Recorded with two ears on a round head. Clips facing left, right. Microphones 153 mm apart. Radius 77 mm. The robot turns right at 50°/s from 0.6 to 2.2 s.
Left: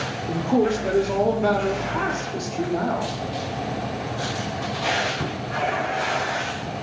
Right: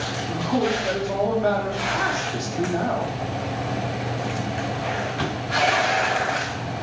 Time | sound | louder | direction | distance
0.3 | a man speaking | left 3 dB | 110° left | 0.8 m